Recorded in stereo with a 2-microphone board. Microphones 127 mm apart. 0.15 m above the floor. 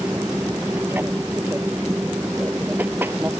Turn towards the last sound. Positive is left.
turn(degrees=-15)  # may be behind; listen again after turning